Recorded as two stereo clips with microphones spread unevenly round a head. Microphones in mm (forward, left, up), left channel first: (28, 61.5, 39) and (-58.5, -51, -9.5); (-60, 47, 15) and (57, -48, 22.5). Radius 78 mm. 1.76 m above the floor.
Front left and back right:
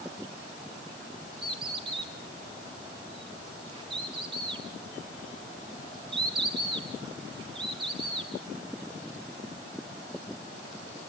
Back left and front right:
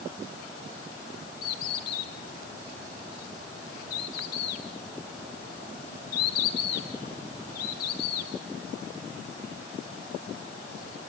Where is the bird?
170° left, 4 m.